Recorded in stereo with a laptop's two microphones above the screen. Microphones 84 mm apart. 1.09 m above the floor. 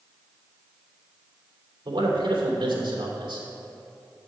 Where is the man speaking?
80° right, 3 m.